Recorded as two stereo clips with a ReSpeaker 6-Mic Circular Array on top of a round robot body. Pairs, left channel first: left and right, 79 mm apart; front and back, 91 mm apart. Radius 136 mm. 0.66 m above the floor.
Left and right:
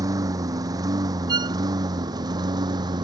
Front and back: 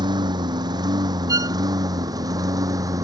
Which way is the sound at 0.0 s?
135° right.